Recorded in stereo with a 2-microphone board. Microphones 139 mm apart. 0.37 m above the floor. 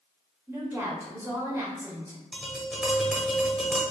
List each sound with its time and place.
0.5 s a woman speaking: 20° right (ahead or behind), 1.2 m
2.3 s tapping: centre (ahead or behind), 1.1 m